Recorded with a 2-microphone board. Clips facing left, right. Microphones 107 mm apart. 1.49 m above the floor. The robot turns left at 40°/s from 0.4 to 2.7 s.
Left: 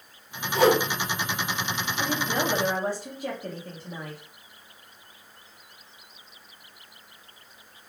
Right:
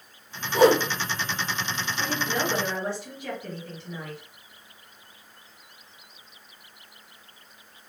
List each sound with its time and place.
0.5 s a whoosh: 45° right (ahead or behind), 2 m; by 0.8 s 50° right (ahead or behind), 2 m
2.0 s a woman speaking: 15° left (ahead or behind), 1.1 m; by 4.2 s 40° left (ahead or behind), 1.1 m